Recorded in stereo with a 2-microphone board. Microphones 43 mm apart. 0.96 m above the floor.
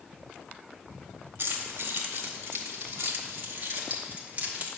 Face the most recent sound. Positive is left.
turn(degrees=-35)  # may be behind; listen again after turning